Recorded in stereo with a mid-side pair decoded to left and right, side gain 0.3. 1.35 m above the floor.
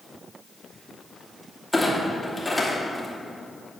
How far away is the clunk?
About 2.5 m.